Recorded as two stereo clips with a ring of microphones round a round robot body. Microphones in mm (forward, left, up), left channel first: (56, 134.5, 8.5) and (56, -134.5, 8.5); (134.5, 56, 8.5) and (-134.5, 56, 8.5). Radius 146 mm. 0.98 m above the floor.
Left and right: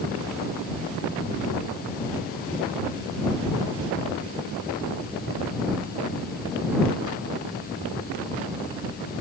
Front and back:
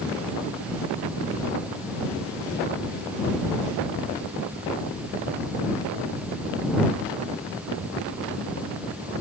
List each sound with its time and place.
Only background noise.